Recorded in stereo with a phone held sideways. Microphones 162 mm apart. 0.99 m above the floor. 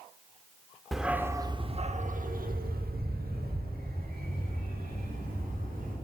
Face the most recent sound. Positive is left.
turn(degrees=-65)  # may be behind; listen again after turning